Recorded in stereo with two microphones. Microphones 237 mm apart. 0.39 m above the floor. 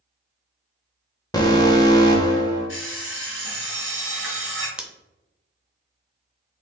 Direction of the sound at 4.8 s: 5° right (ahead or behind).